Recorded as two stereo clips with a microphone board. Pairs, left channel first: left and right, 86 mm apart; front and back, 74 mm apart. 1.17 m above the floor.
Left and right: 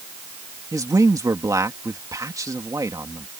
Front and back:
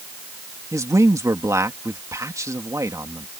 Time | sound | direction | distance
0.7 | a man speaking | 135° right | ?